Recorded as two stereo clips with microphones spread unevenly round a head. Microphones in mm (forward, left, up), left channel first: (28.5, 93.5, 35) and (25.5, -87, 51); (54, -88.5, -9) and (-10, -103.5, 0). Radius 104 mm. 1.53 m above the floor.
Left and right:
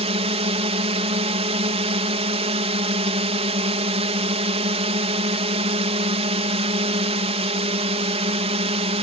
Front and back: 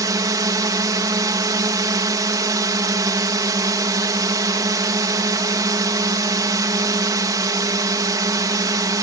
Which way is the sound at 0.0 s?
150° right.